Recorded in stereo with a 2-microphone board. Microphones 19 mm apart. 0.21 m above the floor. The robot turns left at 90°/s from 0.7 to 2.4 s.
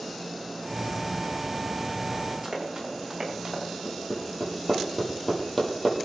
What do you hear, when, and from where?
2.4 s running footsteps: 15° right (ahead or behind), 9 m; by 3.6 s 25° right (ahead or behind), 8.5 m
3.9 s hammering: 30° left (ahead or behind), 5.5 m